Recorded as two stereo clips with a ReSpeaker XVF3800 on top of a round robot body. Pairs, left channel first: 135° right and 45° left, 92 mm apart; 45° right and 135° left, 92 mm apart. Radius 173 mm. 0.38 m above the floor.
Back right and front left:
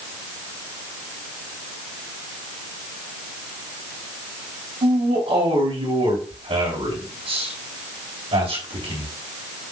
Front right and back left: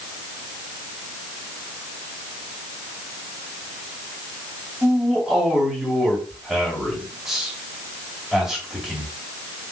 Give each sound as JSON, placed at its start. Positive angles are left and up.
{"t": 4.8, "sound": "a man speaking", "azimuth_deg": 45, "distance_m": 4.0}